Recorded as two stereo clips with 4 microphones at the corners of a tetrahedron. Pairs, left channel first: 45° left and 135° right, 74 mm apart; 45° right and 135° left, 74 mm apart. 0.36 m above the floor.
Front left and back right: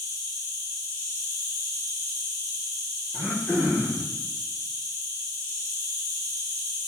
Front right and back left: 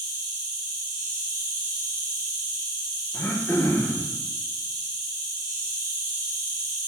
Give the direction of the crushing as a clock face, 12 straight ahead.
No crushing in this recording.